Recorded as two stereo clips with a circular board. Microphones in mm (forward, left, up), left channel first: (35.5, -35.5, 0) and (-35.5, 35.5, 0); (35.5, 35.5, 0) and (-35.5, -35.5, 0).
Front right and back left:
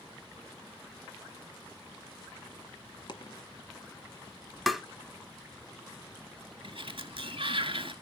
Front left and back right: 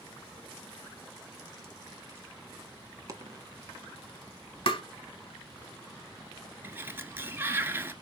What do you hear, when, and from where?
3.1 s a dropped coin: 85° right, 1.6 m
4.7 s tapping: 45° left, 0.7 m
6.6 s a sliding door: 155° left, 1.0 m